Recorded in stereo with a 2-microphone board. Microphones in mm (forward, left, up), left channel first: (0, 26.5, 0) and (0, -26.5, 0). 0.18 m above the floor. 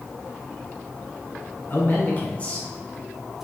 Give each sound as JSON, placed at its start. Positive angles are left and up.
{"t": 1.7, "sound": "a man speaking", "side_deg": 45, "distance_m": 1.5}